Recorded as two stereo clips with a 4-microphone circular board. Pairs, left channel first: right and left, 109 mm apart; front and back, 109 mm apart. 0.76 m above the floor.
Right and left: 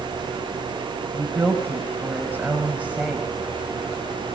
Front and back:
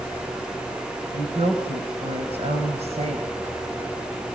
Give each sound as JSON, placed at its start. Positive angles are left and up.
{"t": 1.1, "sound": "a woman speaking", "azimuth_deg": 155, "distance_m": 4.0}